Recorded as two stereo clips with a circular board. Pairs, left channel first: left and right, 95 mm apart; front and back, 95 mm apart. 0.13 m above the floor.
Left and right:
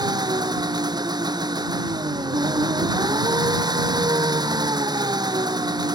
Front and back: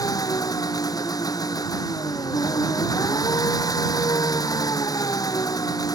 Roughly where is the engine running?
Ahead right.